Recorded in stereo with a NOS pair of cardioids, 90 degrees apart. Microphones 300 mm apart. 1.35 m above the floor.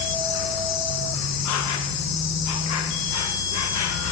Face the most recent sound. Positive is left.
turn(degrees=70)